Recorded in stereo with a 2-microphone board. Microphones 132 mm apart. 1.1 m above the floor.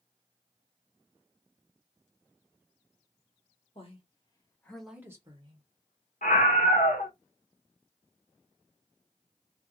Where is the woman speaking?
50° left (ahead or behind), 1.2 m; by 5.7 s 45° right (ahead or behind), 1.0 m.